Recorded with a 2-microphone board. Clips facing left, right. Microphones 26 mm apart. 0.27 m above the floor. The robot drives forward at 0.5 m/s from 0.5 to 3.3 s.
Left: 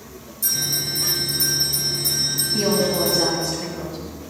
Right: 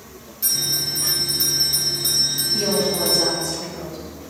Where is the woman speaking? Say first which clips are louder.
Left 2 dB; 20° left (ahead or behind), 1.8 m; by 4.0 s 15° left (ahead or behind), 2 m.